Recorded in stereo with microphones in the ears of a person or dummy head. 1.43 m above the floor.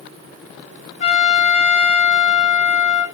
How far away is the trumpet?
About 1.1 m.